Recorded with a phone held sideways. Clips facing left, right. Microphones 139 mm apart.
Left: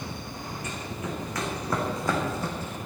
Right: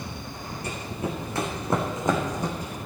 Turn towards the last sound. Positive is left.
turn(degrees=-10)  # may be behind; listen again after turning